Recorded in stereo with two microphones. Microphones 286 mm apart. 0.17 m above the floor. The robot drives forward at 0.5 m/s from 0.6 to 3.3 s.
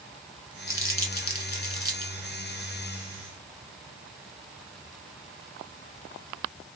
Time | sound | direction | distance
0.7 | crumpling | 45° left (ahead or behind) | 1.0 m